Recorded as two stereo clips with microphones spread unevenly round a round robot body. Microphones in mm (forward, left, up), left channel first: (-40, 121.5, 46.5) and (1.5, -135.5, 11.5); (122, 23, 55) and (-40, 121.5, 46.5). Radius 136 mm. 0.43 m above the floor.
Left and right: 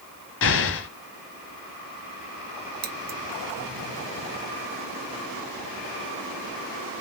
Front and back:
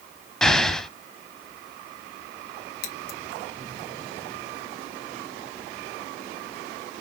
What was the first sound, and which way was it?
An explosion, 55° left.